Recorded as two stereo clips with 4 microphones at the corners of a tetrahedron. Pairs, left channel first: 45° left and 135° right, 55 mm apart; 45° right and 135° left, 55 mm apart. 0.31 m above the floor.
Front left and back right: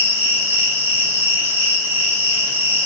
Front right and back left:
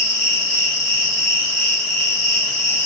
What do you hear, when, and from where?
0.0 s an insect: 130° right, 1.4 m